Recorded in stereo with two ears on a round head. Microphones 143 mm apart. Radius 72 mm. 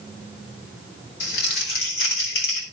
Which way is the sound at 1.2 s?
75° left (ahead or behind).